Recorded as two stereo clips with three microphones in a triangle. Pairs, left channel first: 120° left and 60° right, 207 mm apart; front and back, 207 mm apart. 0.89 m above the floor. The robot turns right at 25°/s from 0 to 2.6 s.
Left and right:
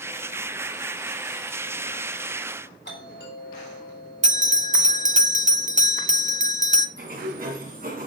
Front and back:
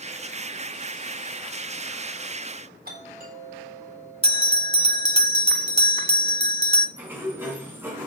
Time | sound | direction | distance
2.9 | a doorbell | 145° left | 4 m
4.2 | a bell | 45° right | 0.8 m
7.0 | a sliding door | 100° right | 3 m